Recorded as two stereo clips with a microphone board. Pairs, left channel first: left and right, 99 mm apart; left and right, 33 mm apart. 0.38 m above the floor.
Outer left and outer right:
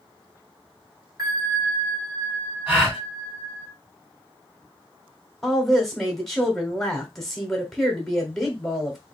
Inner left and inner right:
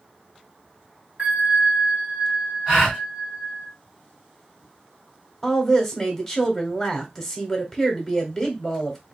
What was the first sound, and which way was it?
A bell, 35° right (ahead or behind).